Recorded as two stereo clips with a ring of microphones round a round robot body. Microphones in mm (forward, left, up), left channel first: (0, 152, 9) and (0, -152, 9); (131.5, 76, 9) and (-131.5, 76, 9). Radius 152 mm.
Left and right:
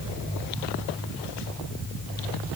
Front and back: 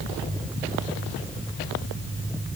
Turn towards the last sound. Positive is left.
No sound to turn to.